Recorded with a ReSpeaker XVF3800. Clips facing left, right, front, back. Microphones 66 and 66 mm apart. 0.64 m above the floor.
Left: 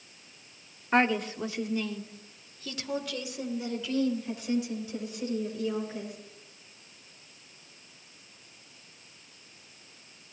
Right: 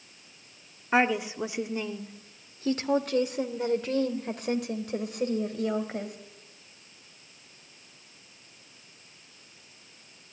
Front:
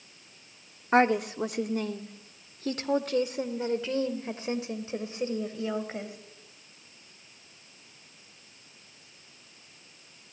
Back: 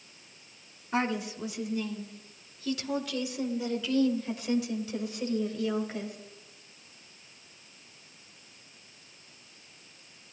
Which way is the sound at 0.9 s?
5° right.